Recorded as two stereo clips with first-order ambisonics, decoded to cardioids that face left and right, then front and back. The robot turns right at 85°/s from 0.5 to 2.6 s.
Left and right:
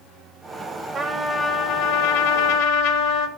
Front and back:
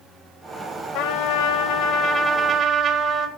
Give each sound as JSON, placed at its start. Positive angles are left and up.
{"t": 0.9, "sound": "a trumpet", "azimuth_deg": -25, "distance_m": 1.6}